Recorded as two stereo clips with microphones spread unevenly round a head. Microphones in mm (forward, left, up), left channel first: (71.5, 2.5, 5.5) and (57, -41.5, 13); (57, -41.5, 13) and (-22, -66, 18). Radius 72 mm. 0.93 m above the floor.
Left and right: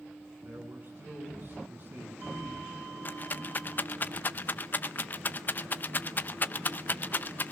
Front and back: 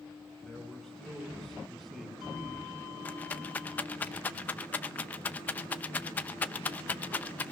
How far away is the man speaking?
About 9.5 m.